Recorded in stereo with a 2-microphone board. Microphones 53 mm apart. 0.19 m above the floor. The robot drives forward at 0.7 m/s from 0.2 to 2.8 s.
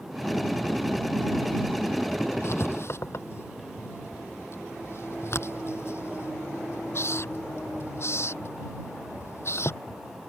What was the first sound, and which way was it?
Writing, 60° left (ahead or behind).